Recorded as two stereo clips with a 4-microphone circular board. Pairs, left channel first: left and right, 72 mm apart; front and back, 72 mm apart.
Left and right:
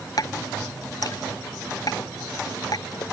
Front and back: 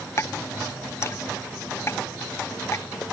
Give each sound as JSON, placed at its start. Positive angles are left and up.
{"t": 0.2, "sound": "dripping", "azimuth_deg": 55}